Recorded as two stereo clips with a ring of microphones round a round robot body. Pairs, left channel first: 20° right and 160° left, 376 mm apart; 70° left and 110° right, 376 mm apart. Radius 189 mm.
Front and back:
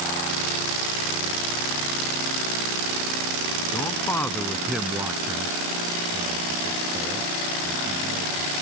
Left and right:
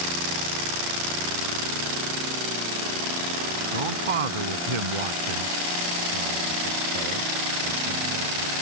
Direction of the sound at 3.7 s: 105° right.